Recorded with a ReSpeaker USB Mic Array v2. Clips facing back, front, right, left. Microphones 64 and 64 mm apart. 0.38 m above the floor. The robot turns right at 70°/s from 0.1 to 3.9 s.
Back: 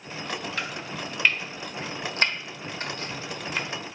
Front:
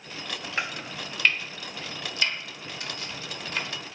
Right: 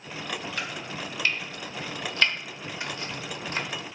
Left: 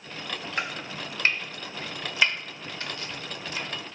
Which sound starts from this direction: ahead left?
Chopping, at 0.6 s.